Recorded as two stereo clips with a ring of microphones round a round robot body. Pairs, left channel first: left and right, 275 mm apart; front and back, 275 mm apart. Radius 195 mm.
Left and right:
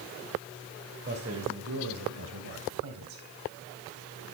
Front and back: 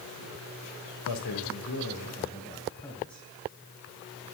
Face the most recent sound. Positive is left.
turn(degrees=-90)